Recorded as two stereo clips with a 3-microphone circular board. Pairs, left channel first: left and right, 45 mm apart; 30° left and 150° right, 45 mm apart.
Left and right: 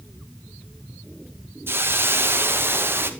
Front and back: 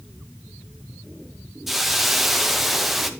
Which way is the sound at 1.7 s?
65° right.